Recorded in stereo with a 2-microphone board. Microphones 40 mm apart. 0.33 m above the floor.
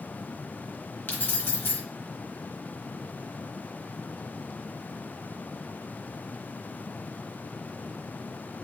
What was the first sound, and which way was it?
Keys jangling, 55° left (ahead or behind).